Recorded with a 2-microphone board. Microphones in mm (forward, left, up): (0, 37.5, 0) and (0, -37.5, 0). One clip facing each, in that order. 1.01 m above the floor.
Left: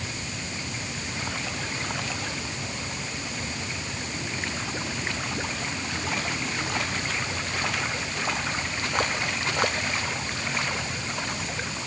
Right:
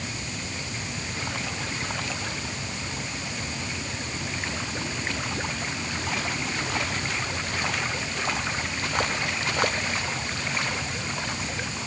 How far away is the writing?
No writing in this recording.